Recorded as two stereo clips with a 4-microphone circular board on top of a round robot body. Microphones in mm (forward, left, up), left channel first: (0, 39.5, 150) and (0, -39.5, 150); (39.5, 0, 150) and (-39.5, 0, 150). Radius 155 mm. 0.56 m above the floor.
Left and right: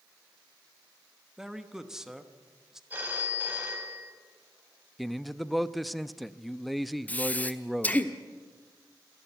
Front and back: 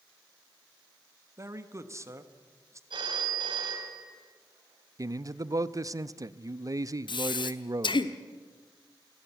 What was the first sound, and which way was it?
A man speaking, 170° right.